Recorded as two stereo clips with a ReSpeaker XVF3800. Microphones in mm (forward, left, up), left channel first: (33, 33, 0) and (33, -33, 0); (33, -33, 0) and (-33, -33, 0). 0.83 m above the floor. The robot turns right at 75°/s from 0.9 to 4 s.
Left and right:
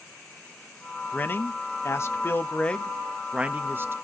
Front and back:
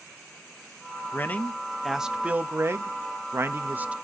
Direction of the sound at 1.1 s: 35° left.